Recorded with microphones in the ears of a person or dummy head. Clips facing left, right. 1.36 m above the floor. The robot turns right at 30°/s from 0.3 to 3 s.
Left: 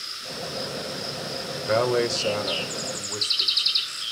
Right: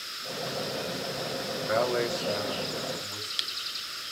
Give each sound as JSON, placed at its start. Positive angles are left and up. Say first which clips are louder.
{"t": 1.7, "sound": "a man speaking", "louder": "left 5 dB", "azimuth_deg": 50, "distance_m": 1.6}